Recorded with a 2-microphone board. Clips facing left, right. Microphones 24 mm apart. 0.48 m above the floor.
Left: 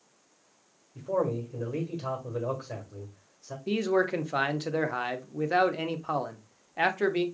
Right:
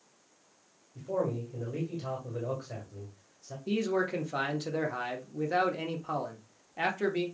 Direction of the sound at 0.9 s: 40° left (ahead or behind).